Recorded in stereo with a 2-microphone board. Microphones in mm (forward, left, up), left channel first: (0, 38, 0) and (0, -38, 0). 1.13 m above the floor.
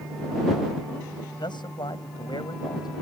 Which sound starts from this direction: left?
A man speaking, at 1.4 s.